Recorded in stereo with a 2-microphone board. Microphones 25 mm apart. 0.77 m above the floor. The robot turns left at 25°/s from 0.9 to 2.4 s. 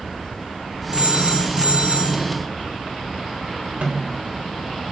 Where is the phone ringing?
65° right, 9 m; by 2.2 s 100° right, 9 m.